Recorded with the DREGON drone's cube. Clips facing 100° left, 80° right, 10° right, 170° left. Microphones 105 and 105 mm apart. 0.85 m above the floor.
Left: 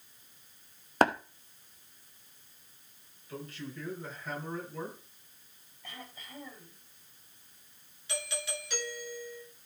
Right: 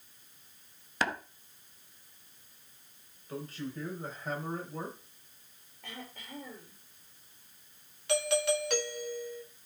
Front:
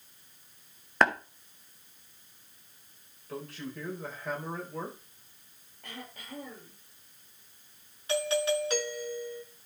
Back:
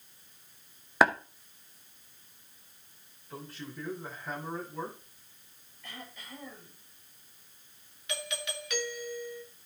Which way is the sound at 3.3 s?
25° right.